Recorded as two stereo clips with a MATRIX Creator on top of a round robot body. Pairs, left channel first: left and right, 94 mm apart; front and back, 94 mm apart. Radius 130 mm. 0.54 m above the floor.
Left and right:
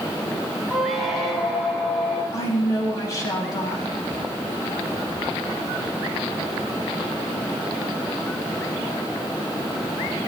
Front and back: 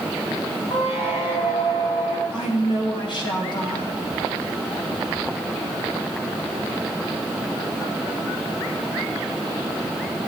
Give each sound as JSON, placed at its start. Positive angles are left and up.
{"t": 0.7, "sound": "a squeak", "azimuth_deg": 0, "distance_m": 3.5}
{"t": 2.3, "sound": "a woman speaking", "azimuth_deg": 35, "distance_m": 4.0}